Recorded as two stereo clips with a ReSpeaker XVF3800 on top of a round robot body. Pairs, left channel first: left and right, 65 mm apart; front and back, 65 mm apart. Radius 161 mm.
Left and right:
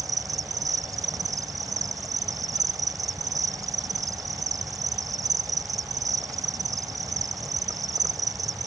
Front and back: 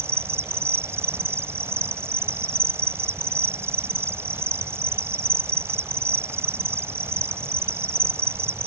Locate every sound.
0.0 s an insect: 130° right